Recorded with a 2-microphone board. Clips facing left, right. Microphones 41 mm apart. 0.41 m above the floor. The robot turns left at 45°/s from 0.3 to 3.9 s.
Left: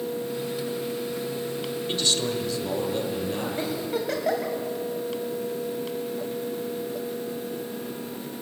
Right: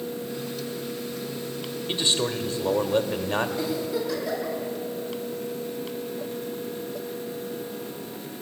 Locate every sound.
1.9 s a man speaking: 30° right, 1.3 m; by 3.5 s 100° right, 1.3 m
3.6 s a giggle: 40° left (ahead or behind), 2 m; by 4.5 s 55° left (ahead or behind), 2 m